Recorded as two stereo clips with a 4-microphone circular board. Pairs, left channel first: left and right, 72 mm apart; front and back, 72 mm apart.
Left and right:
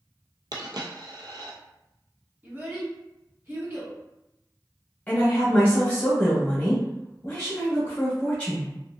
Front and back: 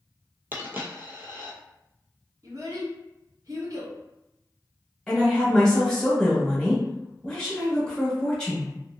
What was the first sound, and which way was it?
A dropped coin, 120° right.